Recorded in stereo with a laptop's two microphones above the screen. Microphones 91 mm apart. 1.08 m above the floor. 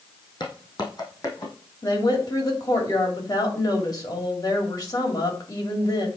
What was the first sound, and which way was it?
Footsteps, 50° left (ahead or behind).